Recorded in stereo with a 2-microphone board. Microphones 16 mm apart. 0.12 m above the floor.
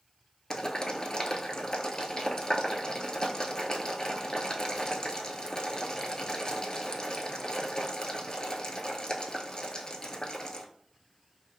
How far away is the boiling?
About 0.6 m.